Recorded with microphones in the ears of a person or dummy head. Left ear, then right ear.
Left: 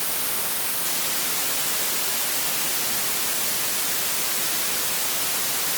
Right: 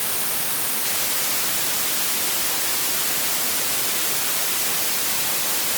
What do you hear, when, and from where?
Only background noise.